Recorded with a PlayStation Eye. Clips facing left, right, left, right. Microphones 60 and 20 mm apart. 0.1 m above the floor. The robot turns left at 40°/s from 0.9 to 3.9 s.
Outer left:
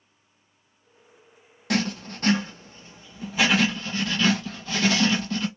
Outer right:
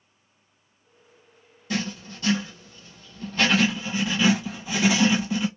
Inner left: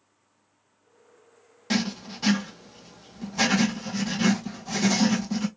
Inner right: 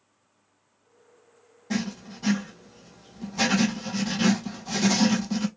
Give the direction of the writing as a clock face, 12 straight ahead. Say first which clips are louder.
Outer left 4 dB, inner left 3 dB; 10 o'clock.